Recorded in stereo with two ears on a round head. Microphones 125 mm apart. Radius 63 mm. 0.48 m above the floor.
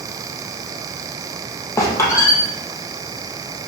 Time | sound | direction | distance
1.8 | a squeak | 20° left (ahead or behind) | 3 m